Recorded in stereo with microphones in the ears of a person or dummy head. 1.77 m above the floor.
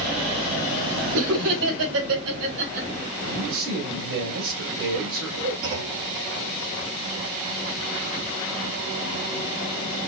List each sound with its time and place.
1.1 s laughter: 75° right (ahead or behind), 2.5 m; by 2.9 s 65° right (ahead or behind), 2.5 m
3.2 s a man speaking: 85° right, 2.5 m
5.6 s a clunk: 70° right (ahead or behind), 2.5 m